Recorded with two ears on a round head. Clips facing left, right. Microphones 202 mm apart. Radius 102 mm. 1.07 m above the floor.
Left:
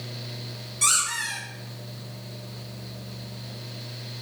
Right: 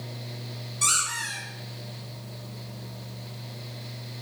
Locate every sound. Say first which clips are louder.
0.8 s a squeak: left 1 dB; 15° left (ahead or behind), 1.4 m